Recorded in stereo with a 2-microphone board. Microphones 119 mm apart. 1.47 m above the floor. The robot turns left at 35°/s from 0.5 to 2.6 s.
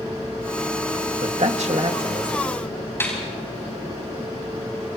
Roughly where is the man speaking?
Right.